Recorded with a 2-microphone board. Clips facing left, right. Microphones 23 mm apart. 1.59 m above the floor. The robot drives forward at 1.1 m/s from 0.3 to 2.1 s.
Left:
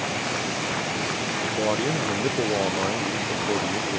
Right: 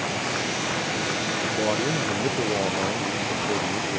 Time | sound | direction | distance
1.4 | a man speaking | 5° left (ahead or behind) | ?